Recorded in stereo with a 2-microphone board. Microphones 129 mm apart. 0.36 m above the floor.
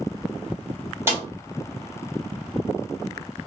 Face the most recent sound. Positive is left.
turn(degrees=-20)  # may be behind; listen again after turning